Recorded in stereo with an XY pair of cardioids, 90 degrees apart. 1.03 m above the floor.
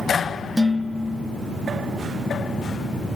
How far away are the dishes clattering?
About 0.5 m.